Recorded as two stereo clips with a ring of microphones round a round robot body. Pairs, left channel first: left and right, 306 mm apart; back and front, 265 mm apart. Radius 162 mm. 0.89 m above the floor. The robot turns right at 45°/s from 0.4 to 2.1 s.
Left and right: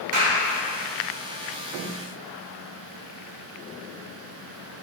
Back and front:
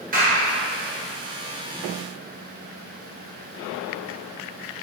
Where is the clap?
60° right, 3 m.